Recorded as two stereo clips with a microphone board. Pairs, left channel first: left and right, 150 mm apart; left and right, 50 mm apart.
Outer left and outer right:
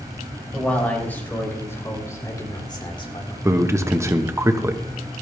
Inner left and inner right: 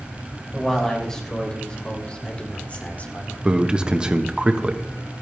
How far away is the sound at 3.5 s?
About 1.1 m.